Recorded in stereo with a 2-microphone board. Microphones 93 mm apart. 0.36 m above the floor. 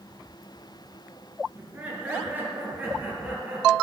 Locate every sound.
1.6 s laughter: 15° right (ahead or behind), 5 m; by 3.7 s 20° right (ahead or behind), 6 m